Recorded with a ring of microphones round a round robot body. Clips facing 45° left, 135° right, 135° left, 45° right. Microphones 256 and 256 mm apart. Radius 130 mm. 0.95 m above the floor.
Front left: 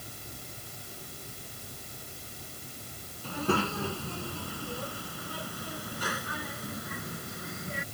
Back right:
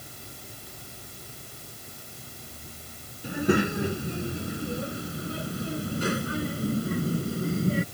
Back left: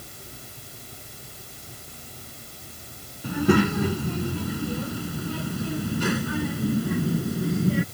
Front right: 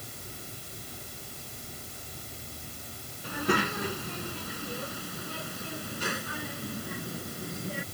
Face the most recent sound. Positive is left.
turn(degrees=165)